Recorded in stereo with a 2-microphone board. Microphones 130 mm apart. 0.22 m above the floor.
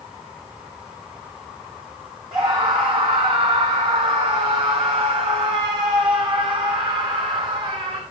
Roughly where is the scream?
Right.